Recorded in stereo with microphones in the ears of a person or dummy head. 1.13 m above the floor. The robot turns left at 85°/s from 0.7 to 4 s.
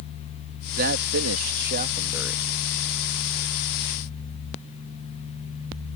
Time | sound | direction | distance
0.8 | a man speaking | 45° right | ?